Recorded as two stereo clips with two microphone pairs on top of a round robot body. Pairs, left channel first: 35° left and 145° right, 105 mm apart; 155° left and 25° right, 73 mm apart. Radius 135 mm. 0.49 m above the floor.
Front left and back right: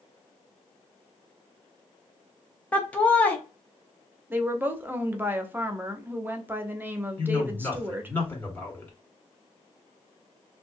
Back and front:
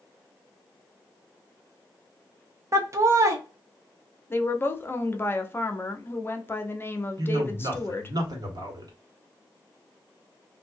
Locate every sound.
2.7 s laughter: 50° right, 0.8 m
4.3 s a woman speaking: 175° right, 0.8 m
7.2 s a man speaking: 40° right, 2.0 m